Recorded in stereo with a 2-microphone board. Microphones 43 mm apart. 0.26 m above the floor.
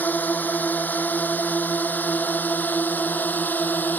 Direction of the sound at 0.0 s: 45° left (ahead or behind).